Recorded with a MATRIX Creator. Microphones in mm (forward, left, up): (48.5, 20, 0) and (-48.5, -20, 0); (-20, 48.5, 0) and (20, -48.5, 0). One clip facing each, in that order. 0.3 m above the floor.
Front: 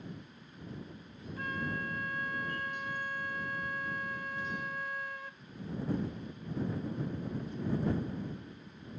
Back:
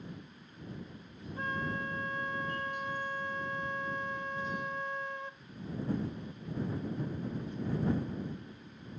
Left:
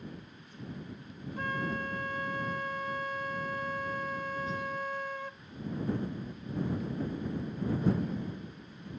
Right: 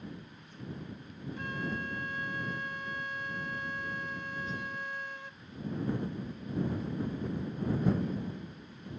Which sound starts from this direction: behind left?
A flute, at 1.4 s.